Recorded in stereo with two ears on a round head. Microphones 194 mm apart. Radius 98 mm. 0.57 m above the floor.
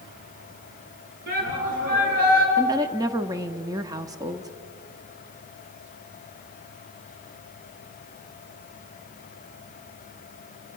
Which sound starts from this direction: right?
A shout, at 1.3 s.